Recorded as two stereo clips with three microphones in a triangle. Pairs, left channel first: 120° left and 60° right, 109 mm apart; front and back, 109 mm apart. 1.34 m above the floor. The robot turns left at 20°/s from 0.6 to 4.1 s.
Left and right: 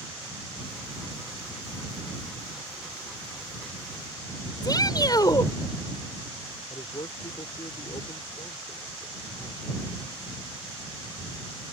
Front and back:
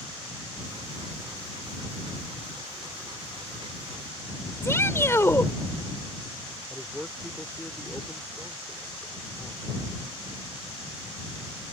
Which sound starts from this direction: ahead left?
A shout, at 4.6 s.